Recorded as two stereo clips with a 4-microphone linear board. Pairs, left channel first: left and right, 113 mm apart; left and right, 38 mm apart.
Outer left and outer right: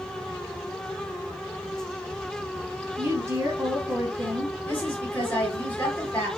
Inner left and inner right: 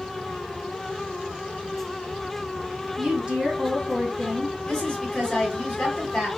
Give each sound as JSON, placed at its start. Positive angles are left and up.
{"t": 3.0, "sound": "a woman speaking", "side_deg": -25, "distance_m": 1.0}
{"t": 4.7, "sound": "a woman speaking", "side_deg": 20, "distance_m": 1.4}